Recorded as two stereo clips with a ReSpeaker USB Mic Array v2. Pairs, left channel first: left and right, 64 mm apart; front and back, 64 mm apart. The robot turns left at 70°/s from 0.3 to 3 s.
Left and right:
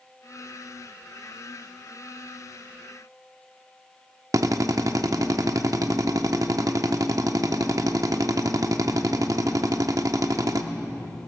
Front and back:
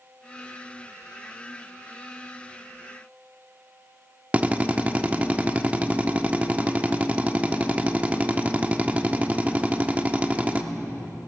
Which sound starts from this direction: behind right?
A drill, at 4.3 s.